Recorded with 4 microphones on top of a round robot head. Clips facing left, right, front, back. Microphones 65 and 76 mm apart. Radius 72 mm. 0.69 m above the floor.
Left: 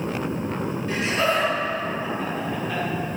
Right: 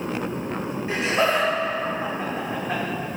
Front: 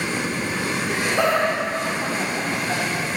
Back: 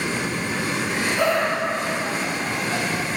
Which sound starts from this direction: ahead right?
Laughter, at 0.9 s.